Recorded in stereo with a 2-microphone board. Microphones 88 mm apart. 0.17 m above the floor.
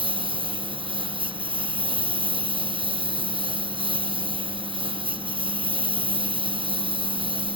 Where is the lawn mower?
85° right.